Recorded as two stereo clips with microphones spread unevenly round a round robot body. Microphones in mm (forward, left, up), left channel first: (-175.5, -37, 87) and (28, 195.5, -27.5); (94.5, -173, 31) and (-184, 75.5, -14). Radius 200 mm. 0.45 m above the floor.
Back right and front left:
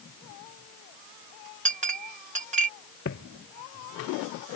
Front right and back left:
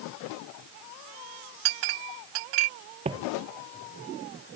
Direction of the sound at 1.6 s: 110° left.